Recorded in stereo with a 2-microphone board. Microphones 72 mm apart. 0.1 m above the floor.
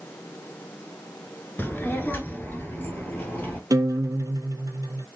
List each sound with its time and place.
1.6 s a child speaking: 25° left (ahead or behind), 0.9 m
3.7 s a guitar: 60° right (ahead or behind), 0.5 m